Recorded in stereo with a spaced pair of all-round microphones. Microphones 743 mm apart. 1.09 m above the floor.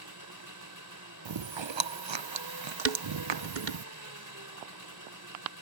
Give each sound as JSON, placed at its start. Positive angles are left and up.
{"t": 0.0, "sound": "an engine running", "side_deg": -25}
{"t": 1.2, "sound": "chewing", "side_deg": -40}
{"t": 2.9, "sound": "dishes clattering", "side_deg": -80}